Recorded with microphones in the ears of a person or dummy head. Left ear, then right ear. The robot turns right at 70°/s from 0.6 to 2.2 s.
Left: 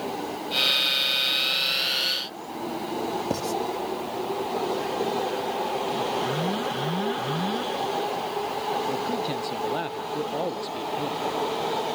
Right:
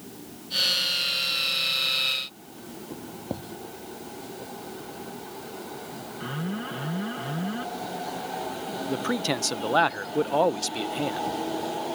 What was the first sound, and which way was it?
Writing, 65° left (ahead or behind).